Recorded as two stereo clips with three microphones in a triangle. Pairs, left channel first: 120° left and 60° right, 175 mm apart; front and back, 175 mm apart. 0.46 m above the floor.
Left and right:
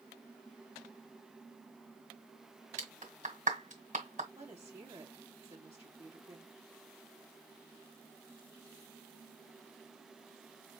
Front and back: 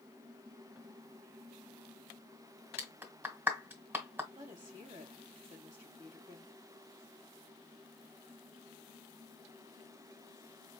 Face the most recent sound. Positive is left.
turn(degrees=-125)